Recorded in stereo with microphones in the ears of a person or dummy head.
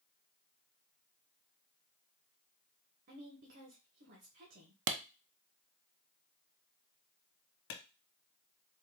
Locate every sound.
3.1 s a woman speaking: 45° right (ahead or behind), 1.1 m
4.9 s a clap: 70° right (ahead or behind), 0.5 m
7.7 s a clap: 85° left, 1.1 m